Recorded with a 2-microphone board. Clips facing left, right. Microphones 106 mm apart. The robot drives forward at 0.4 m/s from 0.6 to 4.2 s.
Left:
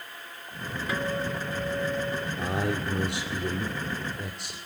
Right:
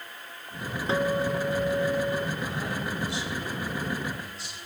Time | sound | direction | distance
0.9 | a guitar | 30° right (ahead or behind) | 2.5 m
2.4 | a man speaking | 70° left (ahead or behind) | 2.5 m